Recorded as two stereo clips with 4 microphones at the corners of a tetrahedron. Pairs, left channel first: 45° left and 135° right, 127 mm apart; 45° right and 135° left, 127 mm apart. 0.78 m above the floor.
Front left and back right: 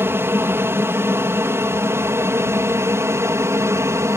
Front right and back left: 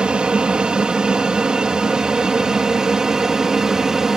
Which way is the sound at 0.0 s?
155° right.